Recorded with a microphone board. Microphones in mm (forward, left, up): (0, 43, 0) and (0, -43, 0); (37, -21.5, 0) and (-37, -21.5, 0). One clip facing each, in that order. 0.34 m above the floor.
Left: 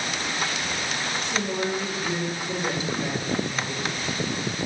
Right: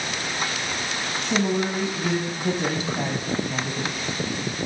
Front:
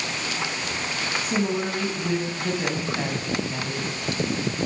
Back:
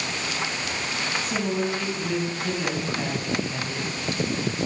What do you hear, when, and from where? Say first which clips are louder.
1.2 s a woman speaking: right 6 dB, front 2 dB; 70° right, 2.0 m